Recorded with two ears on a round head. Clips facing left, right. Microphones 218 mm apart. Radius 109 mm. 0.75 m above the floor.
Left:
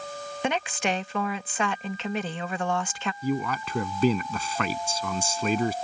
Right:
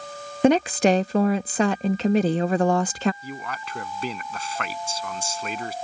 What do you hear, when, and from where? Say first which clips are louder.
0.4 s a woman speaking: right 11 dB; 30° right (ahead or behind)
3.2 s a man speaking: left 8 dB; 70° left (ahead or behind)